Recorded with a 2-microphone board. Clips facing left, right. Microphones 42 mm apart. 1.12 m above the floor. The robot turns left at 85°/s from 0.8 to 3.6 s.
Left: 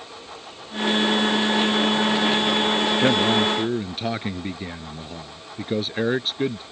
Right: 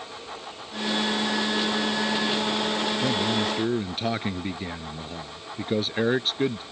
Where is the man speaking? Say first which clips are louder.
Left 7 dB; 55° left; by 6.6 s 5° left.